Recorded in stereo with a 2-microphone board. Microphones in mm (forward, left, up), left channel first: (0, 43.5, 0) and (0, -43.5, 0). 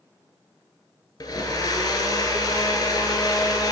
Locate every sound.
1.2 s a blender: 50° left (ahead or behind), 0.9 m